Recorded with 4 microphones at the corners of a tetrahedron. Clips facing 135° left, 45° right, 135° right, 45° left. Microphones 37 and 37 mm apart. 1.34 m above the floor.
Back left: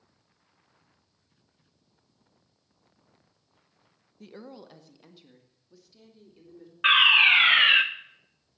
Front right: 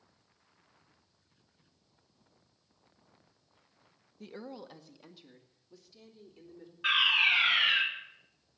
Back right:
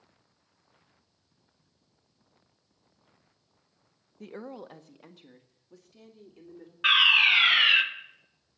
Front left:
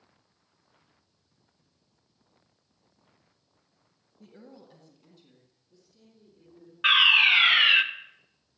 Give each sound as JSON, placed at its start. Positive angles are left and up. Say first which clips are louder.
{"t": 4.2, "sound": "a woman speaking", "louder": "even, back right 9 dB", "azimuth_deg": -135, "distance_m": 0.8}
{"t": 6.8, "sound": "a fire alarm", "louder": "back left 8 dB, front left 1 dB", "azimuth_deg": 125, "distance_m": 1.2}